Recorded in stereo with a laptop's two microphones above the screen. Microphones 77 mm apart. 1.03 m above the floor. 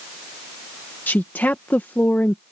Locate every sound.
1.1 s a woman speaking: 20° left (ahead or behind)